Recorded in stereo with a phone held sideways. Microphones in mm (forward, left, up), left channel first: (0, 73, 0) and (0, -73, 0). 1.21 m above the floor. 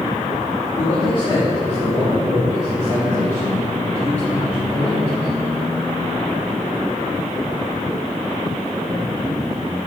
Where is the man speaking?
30° left (ahead or behind), 2.5 m; by 5.3 s 55° left (ahead or behind), 6 m.